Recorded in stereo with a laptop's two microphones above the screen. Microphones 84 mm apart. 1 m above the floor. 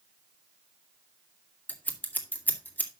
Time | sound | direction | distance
1.7 | scissors | 20° left (ahead or behind) | 1.9 m